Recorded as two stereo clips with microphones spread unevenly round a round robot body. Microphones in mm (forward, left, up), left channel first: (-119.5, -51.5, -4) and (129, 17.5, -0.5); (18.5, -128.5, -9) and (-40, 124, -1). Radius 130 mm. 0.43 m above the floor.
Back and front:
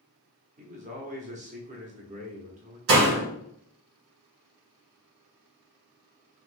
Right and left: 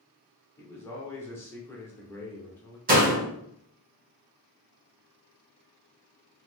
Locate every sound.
0.6 s a man speaking: 10° right, 0.8 m
2.9 s a door slam: 45° left, 1.4 m